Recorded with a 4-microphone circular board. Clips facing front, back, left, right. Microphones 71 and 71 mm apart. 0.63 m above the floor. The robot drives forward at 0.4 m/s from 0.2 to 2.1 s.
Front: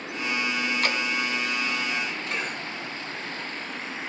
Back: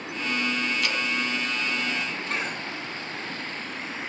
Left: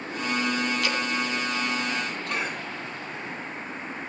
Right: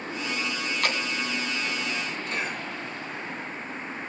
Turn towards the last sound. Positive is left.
turn(degrees=120)